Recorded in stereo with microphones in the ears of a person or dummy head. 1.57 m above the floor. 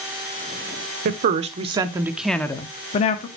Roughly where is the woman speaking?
Right.